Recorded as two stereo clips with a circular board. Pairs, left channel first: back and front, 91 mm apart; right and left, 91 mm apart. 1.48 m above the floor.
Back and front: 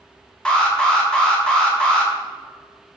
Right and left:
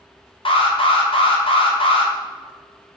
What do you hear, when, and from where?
0.5 s an alarm: 100° right, 1.1 m